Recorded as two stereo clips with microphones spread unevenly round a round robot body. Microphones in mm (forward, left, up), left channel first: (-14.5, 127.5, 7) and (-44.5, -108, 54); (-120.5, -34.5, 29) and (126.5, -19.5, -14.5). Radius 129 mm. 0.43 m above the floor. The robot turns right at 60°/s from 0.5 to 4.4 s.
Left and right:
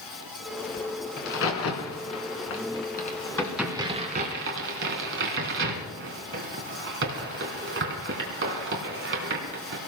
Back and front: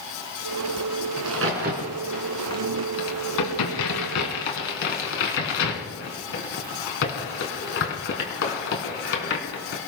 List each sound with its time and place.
1.2 s a crack: 30° left, 3 m; by 9.8 s 135° right, 3 m